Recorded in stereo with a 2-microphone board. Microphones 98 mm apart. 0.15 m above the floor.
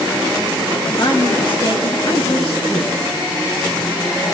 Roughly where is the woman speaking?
Left.